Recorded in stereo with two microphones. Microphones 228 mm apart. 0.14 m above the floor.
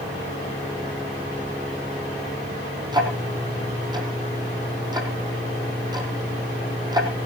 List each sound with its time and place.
2.9 s ticking: 20° right (ahead or behind), 3.5 m